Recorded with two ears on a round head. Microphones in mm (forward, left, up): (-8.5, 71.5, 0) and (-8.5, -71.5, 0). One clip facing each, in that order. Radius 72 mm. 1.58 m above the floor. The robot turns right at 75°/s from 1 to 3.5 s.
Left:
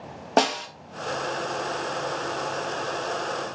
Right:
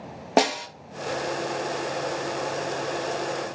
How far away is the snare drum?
About 0.6 m.